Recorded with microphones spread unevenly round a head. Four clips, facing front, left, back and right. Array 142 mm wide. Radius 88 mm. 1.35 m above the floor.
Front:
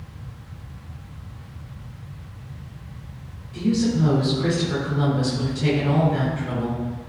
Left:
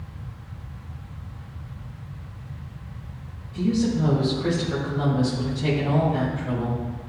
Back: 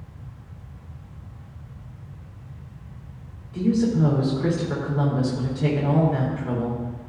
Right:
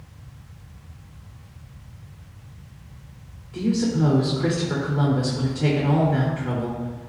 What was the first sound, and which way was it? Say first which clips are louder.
A woman speaking: even, even; 105° right.